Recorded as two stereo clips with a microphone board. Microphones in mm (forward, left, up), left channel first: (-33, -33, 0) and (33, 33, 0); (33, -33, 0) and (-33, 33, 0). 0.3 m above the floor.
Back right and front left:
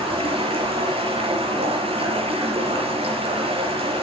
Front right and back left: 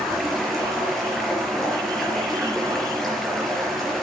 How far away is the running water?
About 5 m.